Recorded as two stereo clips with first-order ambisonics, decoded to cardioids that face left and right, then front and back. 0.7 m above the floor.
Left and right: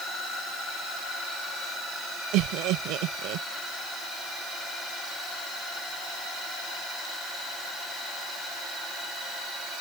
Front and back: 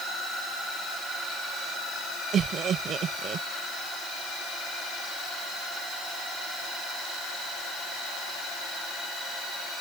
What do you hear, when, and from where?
2.3 s laughter: 120° right